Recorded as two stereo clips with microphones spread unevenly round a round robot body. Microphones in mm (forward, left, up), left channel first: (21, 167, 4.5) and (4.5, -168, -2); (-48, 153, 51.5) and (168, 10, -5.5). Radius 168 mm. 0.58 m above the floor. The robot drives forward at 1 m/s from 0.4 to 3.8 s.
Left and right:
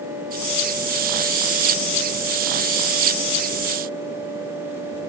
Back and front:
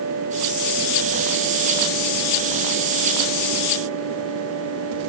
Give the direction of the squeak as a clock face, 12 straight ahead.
I don't hear a squeak.